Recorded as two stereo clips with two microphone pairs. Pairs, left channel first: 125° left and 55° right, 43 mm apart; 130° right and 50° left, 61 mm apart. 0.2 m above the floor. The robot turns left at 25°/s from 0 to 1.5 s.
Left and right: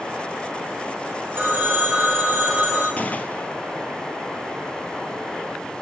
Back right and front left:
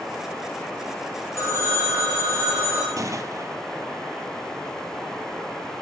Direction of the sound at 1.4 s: 95° right.